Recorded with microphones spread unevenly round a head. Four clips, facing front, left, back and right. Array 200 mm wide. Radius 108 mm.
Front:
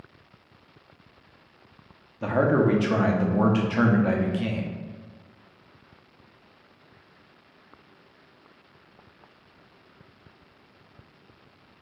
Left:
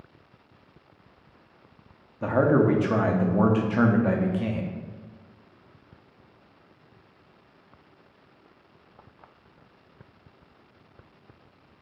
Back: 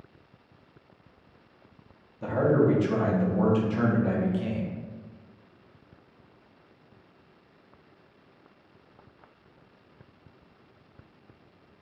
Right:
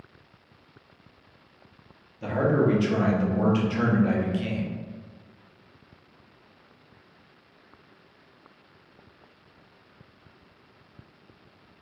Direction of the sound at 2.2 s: 35° left.